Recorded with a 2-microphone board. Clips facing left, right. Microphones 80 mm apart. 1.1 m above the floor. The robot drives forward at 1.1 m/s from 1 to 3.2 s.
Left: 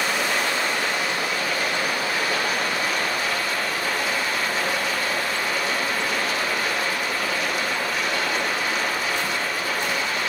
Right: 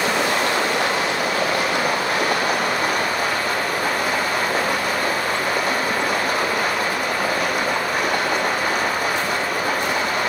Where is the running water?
75° right (ahead or behind), 4 m; by 10.3 s 55° right (ahead or behind), 5 m.